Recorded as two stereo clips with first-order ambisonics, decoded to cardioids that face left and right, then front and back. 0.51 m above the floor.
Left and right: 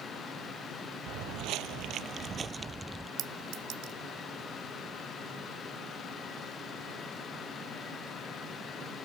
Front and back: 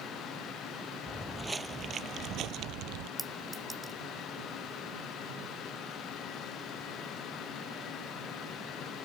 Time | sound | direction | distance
1.1 | footsteps | 85° right | ?
3.2 | a clink | 105° right | ?